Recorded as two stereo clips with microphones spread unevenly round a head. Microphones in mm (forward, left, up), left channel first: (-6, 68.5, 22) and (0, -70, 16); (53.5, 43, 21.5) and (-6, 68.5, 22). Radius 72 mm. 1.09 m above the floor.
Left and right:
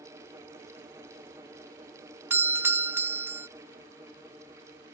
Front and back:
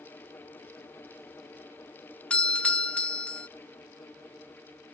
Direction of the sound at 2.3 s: 55° right.